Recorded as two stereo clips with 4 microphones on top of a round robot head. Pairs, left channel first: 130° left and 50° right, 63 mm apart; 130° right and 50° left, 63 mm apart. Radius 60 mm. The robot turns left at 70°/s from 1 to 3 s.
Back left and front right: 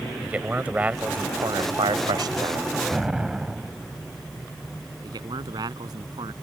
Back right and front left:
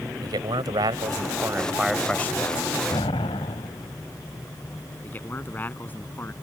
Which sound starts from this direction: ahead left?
A man speaking, at 0.2 s.